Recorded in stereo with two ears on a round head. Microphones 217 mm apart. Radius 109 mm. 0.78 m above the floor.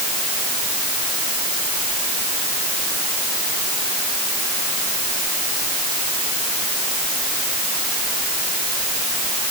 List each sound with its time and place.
Only background noise.